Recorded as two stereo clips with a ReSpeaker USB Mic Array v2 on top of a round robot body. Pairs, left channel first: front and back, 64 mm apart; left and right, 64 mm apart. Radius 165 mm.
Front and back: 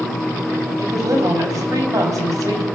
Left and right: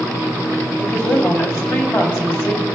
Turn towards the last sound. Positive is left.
turn(degrees=140)